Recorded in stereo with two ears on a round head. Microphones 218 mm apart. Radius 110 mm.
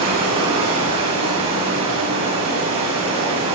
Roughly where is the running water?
Right.